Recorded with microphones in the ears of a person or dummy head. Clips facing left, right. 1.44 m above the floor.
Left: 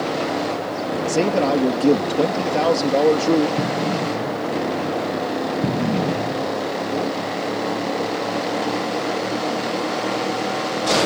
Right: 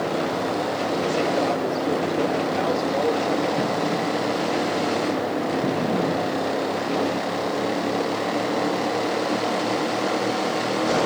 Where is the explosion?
25° left (ahead or behind).